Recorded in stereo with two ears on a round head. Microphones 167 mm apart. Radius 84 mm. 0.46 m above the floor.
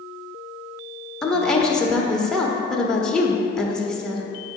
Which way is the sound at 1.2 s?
5° left (ahead or behind).